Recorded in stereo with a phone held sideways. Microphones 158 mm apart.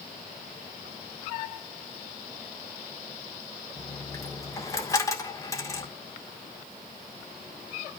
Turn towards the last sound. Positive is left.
turn(degrees=20)  # may be behind; listen again after turning